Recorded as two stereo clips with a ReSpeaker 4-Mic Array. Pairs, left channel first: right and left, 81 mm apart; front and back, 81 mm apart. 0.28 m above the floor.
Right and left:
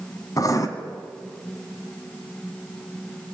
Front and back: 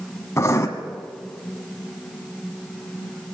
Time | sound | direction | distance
0.4 | writing | 50° right | 2.5 m